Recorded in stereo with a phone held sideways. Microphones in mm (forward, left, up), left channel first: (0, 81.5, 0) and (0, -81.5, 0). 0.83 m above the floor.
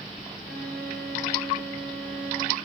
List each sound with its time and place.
0.5 s a violin: 80° right, 3.5 m